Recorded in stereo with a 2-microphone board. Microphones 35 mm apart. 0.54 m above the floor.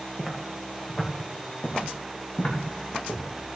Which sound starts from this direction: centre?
Footsteps, at 0.2 s.